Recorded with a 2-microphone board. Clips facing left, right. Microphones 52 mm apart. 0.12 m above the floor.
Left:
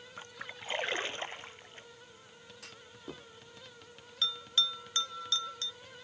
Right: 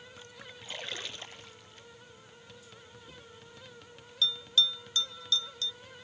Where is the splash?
30° left (ahead or behind).